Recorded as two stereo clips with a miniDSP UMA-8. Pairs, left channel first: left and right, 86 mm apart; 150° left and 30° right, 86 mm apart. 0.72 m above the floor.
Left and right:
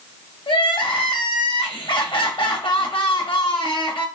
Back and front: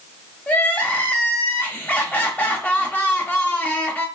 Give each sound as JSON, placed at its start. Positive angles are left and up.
{"t": 0.5, "sound": "crying", "azimuth_deg": 80, "distance_m": 0.7}